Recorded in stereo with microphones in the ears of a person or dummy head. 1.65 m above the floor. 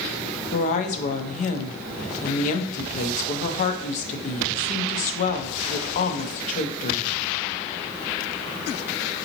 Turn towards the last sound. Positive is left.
turn(degrees=45)  # may be behind; listen again after turning